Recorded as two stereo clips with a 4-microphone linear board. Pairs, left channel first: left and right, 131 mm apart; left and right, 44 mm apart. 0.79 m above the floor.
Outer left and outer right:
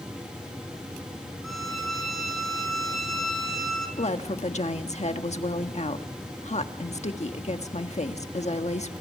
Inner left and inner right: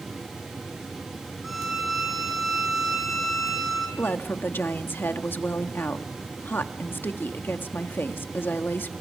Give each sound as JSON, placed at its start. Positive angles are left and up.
{"t": 1.4, "sound": "a violin", "side_deg": 0, "distance_m": 7.5}
{"t": 4.0, "sound": "a woman speaking", "side_deg": 55, "distance_m": 1.5}